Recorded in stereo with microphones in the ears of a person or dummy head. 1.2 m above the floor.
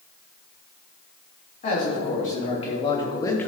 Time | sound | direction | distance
1.6 | a man speaking | 45° left (ahead or behind) | 3 m